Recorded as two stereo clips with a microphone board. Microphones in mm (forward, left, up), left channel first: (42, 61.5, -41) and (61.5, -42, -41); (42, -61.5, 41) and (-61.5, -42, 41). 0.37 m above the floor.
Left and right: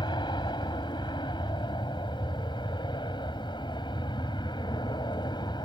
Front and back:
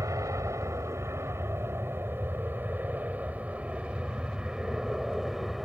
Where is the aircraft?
120° left; by 5.7 s 80° left.